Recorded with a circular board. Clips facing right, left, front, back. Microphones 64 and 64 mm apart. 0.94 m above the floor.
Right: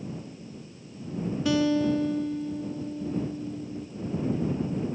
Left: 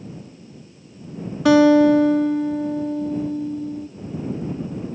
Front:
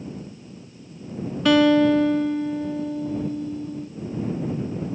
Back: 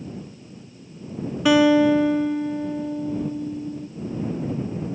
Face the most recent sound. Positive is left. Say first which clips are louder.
# left 12 dB, even
turn(degrees=95)